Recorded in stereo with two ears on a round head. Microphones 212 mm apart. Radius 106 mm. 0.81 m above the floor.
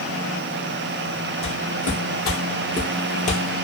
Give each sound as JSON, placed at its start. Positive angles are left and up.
{"t": 1.4, "sound": "footsteps", "side_deg": 40, "distance_m": 1.7}